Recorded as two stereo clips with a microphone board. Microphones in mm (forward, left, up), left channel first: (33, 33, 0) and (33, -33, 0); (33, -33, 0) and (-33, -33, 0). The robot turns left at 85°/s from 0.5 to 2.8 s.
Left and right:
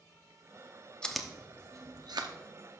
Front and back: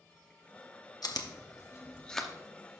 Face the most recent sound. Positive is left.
turn(degrees=-140)